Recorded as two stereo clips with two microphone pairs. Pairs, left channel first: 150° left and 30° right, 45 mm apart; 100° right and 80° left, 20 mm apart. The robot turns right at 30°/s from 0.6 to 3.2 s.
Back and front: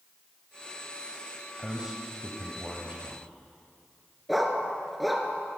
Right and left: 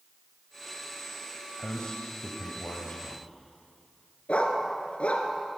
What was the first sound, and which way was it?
A man speaking, 110° right.